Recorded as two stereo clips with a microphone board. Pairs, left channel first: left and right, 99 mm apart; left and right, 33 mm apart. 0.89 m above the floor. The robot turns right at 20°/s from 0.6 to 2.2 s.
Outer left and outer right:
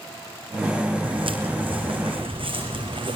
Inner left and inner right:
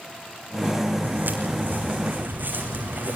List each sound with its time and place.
1.0 s footsteps: 60° right (ahead or behind), 3 m; by 3.2 s 50° right (ahead or behind), 4 m